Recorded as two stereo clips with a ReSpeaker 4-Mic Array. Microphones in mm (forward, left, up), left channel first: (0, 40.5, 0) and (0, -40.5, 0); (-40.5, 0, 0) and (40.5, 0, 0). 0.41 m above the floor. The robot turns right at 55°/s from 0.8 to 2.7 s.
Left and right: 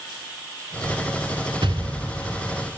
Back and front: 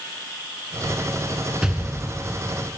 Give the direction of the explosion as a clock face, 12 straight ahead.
3 o'clock.